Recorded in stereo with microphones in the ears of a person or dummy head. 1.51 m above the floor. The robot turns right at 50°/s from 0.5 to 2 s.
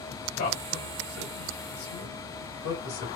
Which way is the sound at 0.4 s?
35° left (ahead or behind).